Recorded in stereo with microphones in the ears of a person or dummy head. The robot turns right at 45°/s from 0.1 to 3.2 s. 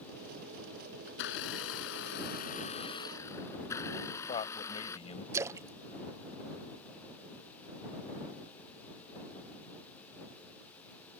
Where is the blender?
75° left; by 5.0 s 170° left.